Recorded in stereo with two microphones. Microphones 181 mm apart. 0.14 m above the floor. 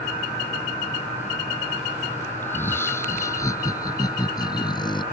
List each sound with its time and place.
2.4 s laughter: 10° left (ahead or behind); by 5.0 s 25° left (ahead or behind)